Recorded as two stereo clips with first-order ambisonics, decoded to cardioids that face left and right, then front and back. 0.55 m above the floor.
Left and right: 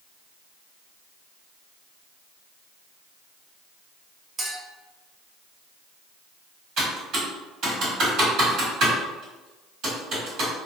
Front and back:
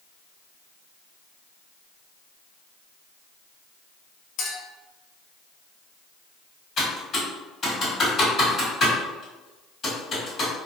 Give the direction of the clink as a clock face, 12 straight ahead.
1 o'clock.